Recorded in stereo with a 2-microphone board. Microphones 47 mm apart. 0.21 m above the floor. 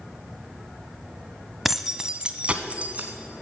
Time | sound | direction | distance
1.6 | keys jangling | 5° right (ahead or behind) | 0.7 m